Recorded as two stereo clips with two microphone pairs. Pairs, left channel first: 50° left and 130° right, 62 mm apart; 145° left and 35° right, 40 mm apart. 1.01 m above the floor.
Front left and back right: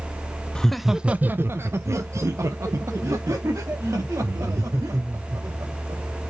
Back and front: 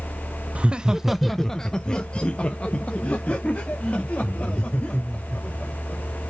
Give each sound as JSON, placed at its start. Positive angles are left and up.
{"t": 0.6, "sound": "laughter", "azimuth_deg": -15, "distance_m": 0.5}